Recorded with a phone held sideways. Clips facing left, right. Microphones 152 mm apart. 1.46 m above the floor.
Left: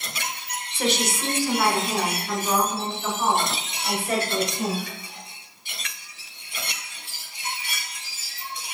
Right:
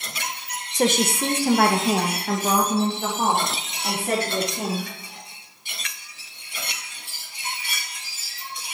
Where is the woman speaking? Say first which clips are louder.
Right 4 dB; 40° right (ahead or behind), 1.0 m; by 4.8 s 70° right (ahead or behind), 3.5 m.